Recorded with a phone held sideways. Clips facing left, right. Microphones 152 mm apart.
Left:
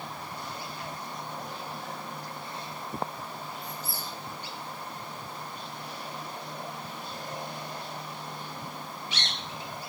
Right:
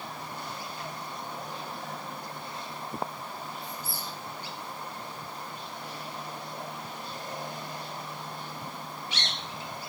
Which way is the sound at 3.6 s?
75° left (ahead or behind).